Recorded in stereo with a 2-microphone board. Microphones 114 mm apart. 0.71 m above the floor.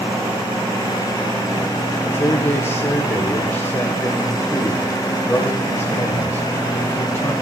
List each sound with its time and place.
2.1 s a man speaking: 20° left (ahead or behind), 2.5 m